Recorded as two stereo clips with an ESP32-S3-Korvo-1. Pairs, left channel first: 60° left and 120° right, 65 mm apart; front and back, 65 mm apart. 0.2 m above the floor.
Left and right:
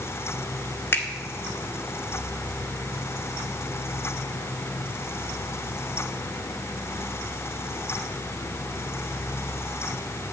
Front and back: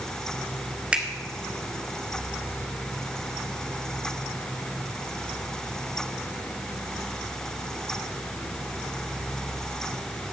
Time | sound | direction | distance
0.9 | a finger snap | 110° left | 1.6 m